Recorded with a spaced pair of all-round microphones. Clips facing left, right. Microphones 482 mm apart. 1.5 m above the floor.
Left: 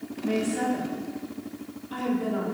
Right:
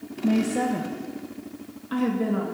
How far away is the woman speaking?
About 1.4 m.